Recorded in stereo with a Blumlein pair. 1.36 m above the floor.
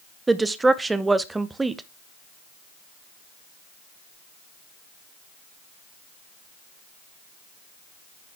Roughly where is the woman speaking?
Ahead.